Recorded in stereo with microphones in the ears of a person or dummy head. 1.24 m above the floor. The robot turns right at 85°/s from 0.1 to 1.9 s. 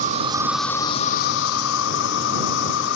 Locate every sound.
0.0 s an insect: 40° right; by 3.0 s 110° left